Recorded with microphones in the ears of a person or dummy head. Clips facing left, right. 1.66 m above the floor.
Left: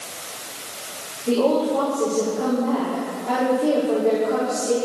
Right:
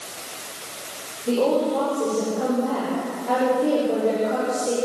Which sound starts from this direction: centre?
A woman speaking, at 1.3 s.